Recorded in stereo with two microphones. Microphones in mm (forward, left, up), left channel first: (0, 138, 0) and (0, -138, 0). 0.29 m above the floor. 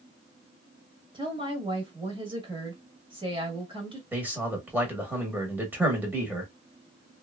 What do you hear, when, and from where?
1.1 s a woman speaking: 20° right (ahead or behind), 1.1 m
4.1 s a man speaking: 5° right (ahead or behind), 1.0 m